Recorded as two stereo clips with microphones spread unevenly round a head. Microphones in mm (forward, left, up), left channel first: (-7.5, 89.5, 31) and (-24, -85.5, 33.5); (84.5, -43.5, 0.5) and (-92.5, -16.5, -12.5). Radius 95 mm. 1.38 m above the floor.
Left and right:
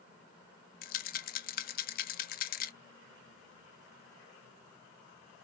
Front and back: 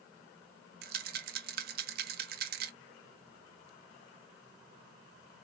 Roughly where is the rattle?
Behind left.